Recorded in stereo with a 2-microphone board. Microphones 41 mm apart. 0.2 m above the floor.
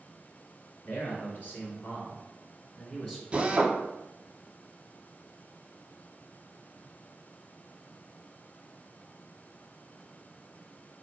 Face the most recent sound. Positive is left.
turn(degrees=-30)  # may be behind; listen again after turning